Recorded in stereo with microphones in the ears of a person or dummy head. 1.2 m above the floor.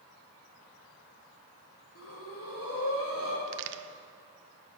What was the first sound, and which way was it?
Breathing, 75° left (ahead or behind).